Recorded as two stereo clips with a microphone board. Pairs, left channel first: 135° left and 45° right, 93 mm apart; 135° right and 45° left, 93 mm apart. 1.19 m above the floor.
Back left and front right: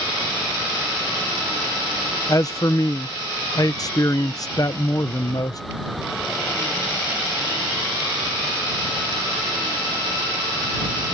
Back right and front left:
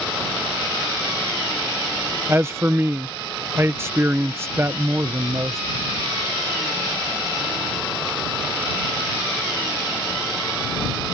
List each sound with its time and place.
2.3 s a man speaking: 100° left